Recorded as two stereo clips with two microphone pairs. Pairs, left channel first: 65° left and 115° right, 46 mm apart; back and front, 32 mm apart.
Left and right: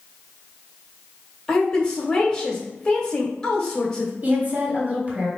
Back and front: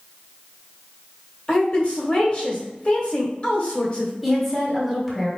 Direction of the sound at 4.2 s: 90° right.